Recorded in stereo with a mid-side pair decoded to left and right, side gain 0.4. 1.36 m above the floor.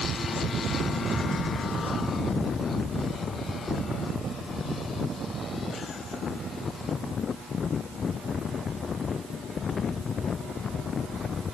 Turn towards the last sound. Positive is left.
No sound to turn to.